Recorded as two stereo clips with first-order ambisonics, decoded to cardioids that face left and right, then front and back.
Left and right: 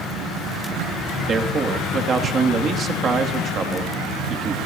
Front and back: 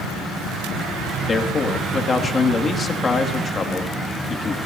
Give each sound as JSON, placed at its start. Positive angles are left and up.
{"t": 1.3, "sound": "a man speaking", "azimuth_deg": -55, "distance_m": 1.1}